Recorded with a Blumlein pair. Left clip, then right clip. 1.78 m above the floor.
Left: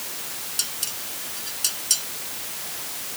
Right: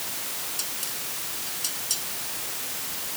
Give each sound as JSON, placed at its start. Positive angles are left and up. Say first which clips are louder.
{"t": 0.6, "sound": "dishes clattering", "louder": "left 3 dB", "azimuth_deg": 70}